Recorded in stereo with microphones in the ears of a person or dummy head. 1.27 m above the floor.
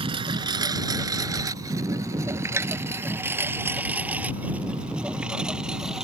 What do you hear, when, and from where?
0.0 s a lawn mower: 25° right (ahead or behind); by 6.0 s 5° right (ahead or behind)
2.6 s tapping: 10° right (ahead or behind)